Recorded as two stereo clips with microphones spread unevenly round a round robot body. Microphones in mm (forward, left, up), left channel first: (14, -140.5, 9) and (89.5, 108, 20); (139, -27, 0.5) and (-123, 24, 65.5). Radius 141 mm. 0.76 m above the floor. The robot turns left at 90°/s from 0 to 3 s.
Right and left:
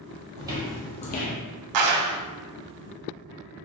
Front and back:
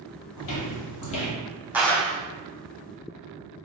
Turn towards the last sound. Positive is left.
turn(degrees=-35)